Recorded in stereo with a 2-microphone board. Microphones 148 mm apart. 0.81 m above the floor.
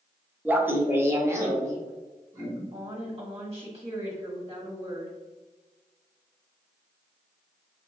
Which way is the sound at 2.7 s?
40° right (ahead or behind).